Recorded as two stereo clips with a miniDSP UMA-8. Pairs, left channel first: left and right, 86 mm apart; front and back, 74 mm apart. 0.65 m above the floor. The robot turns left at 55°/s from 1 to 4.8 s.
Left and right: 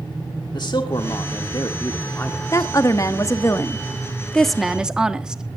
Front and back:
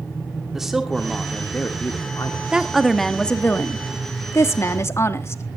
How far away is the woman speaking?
About 1.3 m.